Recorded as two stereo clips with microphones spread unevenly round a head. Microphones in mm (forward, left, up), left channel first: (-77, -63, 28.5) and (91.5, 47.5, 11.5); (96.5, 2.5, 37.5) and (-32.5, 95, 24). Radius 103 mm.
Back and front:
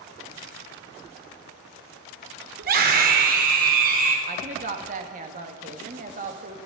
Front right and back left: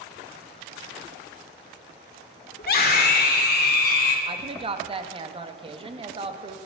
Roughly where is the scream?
Ahead.